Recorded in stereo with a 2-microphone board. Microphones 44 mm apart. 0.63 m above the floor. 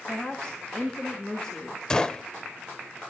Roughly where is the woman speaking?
Left.